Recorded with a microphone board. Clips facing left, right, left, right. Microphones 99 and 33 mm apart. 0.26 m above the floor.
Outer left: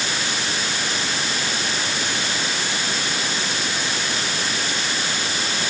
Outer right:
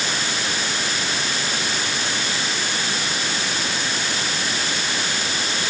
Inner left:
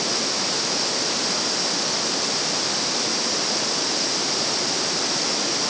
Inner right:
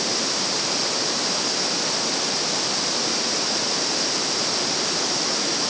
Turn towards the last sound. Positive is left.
No sound to turn to.